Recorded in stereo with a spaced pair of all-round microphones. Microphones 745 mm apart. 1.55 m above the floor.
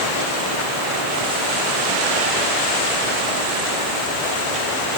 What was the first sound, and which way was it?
Only background noise.